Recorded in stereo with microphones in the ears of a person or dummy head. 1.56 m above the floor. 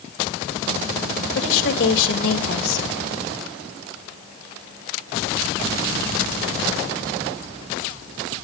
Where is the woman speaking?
75° left (ahead or behind), 2 m.